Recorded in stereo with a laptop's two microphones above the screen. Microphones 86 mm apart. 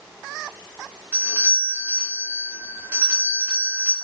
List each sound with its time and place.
1.1 s a doorbell: 20° right (ahead or behind), 1.2 m